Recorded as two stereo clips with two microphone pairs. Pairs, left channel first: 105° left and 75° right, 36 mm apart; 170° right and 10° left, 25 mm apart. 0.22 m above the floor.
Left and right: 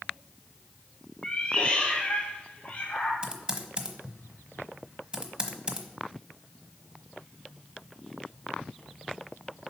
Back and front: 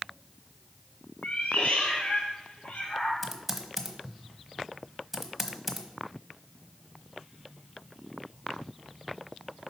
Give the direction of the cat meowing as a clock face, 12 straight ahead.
6 o'clock.